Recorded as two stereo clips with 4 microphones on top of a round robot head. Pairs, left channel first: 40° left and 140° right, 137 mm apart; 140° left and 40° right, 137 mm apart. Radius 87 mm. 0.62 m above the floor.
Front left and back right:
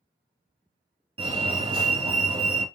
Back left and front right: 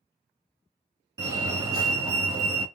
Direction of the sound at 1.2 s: 100° right.